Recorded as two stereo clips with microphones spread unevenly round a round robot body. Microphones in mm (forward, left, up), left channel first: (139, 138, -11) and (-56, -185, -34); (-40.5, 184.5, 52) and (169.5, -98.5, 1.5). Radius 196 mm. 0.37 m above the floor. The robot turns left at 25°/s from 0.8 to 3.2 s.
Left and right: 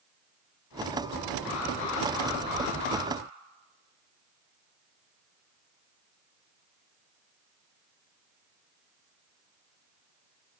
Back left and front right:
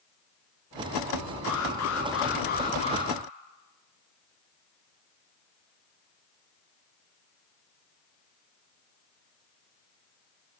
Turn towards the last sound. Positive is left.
turn(degrees=45)